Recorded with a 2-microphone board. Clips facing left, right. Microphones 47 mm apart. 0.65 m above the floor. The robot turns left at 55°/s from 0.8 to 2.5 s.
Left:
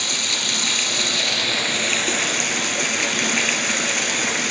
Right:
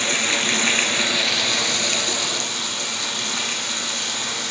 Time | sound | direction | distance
0.0 | running water | 150° right | 1.4 m